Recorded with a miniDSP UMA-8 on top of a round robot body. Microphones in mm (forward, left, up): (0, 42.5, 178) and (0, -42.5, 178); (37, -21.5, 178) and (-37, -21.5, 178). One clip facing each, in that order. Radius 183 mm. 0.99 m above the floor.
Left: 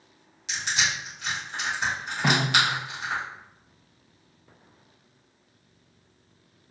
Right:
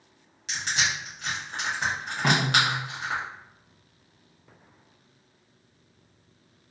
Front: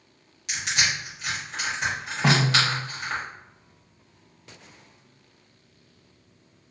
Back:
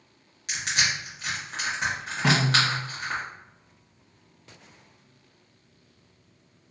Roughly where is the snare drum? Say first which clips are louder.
Even, front 1 dB; ahead left.